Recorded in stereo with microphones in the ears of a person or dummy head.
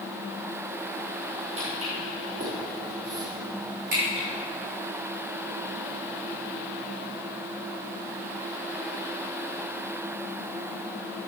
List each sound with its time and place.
1.6 s footsteps: 45° right (ahead or behind), 3.5 m; by 4.2 s 70° right (ahead or behind), 5 m